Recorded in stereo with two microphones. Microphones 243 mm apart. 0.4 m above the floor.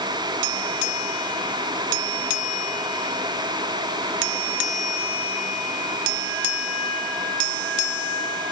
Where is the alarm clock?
No alarm clock in this recording.